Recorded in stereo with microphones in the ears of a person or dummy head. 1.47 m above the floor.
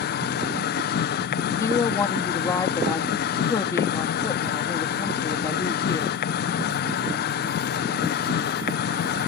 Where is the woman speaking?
25° left (ahead or behind).